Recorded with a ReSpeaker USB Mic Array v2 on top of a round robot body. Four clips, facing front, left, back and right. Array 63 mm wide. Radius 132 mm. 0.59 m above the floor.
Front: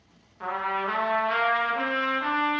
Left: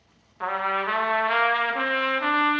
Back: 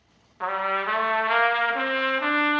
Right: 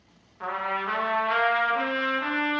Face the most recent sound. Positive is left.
turn(degrees=145)